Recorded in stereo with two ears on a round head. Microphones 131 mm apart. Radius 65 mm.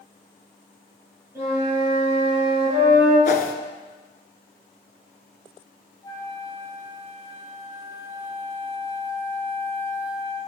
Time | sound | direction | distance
1.4 | a flute | 20° right (ahead or behind) | 5 m
3.2 | a whoosh | 65° left (ahead or behind) | 1.0 m
6.0 | a flute | 30° left (ahead or behind) | 1.5 m